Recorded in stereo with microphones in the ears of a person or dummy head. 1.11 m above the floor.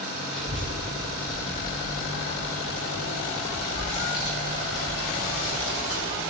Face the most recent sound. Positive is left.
turn(degrees=45)  # may be behind; listen again after turning